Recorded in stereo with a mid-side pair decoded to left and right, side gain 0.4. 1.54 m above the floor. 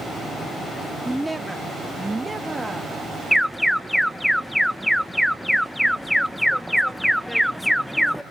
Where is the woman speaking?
5° right, 0.9 m; by 3.0 s 20° right, 3.5 m.